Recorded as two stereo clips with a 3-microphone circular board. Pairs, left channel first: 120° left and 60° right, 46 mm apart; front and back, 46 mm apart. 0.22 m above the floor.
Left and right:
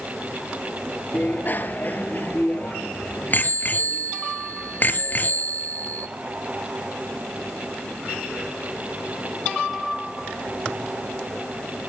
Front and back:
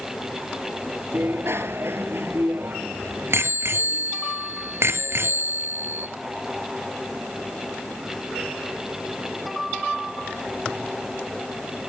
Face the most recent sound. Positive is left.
turn(degrees=165)